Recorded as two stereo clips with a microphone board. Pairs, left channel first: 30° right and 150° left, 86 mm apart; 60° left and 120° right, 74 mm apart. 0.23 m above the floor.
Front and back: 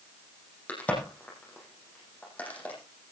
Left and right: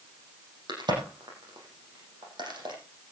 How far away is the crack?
About 9 m.